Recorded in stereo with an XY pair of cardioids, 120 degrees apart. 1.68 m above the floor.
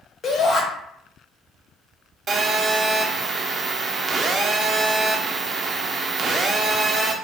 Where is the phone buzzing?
35° right, 0.6 m.